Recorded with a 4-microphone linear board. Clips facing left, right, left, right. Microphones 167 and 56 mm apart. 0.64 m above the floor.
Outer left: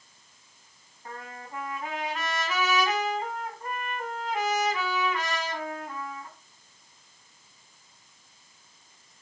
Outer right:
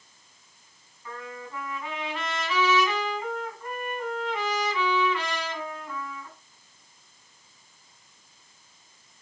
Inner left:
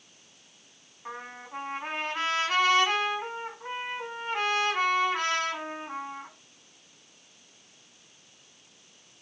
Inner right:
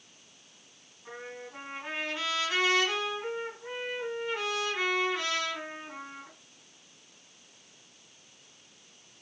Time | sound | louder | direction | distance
1.1 | a trumpet | outer right 3 dB, inner left 2 dB | 45° left (ahead or behind) | 5.5 m